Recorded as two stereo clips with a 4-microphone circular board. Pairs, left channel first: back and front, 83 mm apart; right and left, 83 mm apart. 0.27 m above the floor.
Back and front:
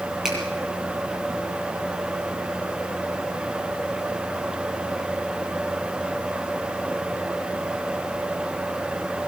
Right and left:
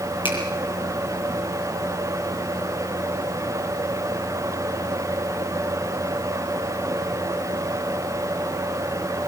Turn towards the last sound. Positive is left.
turn(degrees=-85)